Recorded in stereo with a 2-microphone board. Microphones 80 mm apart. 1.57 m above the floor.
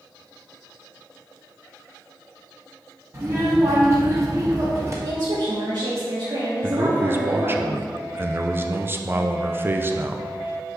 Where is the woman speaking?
70° right (ahead or behind), 1.4 m.